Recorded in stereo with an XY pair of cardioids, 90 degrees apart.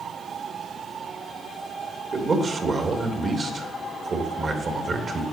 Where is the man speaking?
40° right, 3 m.